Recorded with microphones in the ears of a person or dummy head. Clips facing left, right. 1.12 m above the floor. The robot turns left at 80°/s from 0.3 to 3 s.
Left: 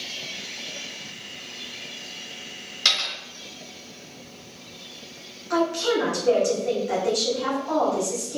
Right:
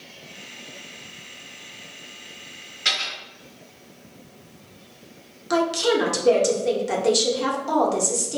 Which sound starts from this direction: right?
A woman speaking, at 5.5 s.